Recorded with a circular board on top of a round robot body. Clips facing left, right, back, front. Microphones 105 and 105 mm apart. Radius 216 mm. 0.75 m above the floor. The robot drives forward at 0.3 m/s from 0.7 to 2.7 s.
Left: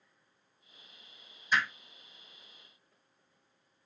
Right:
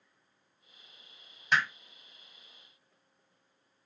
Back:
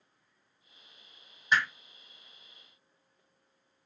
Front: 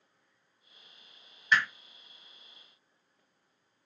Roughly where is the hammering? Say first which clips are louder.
Right 2 dB, even; behind right.